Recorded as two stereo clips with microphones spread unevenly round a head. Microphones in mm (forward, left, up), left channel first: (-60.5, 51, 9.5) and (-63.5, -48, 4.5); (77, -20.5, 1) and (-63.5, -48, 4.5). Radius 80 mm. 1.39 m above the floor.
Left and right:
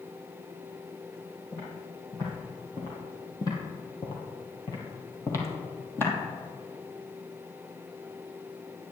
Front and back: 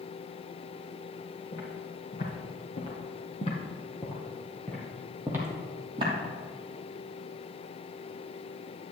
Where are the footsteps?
20° left, 3 m; by 6.1 s 145° left, 2 m.